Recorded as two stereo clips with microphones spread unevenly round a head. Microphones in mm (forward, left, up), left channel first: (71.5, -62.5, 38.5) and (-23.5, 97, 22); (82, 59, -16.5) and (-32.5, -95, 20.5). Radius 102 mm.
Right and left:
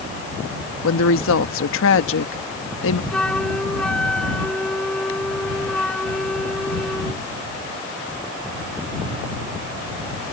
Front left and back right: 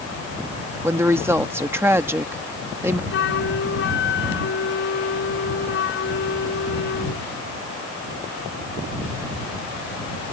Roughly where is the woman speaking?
Ahead right.